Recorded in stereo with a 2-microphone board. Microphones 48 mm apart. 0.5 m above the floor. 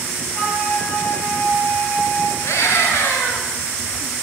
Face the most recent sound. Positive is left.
turn(degrees=65)  # may be behind; listen again after turning